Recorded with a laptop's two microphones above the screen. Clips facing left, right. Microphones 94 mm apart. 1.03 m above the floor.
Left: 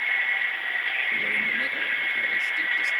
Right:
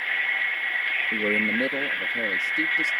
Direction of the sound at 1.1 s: 60° right (ahead or behind).